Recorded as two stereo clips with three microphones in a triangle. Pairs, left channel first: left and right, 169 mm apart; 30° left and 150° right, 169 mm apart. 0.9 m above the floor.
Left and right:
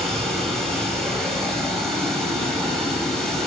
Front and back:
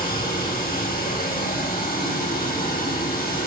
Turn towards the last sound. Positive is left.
turn(degrees=5)